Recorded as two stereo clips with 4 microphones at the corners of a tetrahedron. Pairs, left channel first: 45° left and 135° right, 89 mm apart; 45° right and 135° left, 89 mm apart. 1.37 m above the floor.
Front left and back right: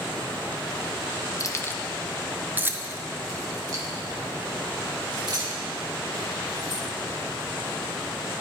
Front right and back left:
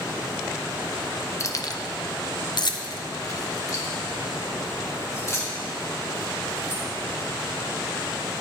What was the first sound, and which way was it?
Keys jangling, 5° left.